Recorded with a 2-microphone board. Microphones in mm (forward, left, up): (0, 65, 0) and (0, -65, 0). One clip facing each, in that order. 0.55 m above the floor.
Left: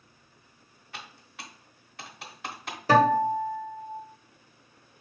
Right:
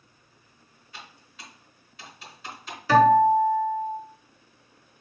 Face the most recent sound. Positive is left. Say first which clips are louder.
# right 4 dB
turn(degrees=40)  # may be behind; listen again after turning